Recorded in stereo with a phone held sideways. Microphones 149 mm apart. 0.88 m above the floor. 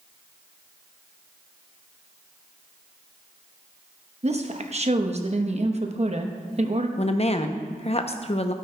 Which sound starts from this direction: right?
A woman speaking, at 4.2 s.